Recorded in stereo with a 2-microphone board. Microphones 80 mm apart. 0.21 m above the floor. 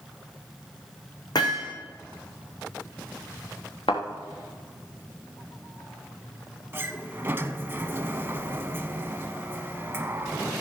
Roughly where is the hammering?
Left.